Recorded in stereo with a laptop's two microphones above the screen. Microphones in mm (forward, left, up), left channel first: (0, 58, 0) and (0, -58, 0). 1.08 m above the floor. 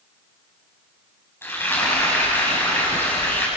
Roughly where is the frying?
Centre.